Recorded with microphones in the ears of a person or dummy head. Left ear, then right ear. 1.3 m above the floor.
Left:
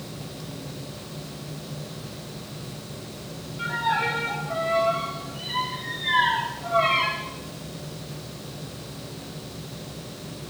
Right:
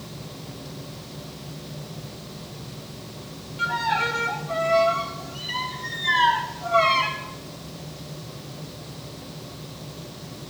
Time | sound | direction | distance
3.6 | a violin | 85° right | 1.6 m